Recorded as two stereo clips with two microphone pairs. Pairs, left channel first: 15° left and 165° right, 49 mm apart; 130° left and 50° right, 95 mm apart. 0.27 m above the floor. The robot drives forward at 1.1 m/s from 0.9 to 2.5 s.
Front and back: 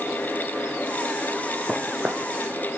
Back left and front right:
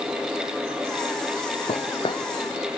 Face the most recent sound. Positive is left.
turn(degrees=155)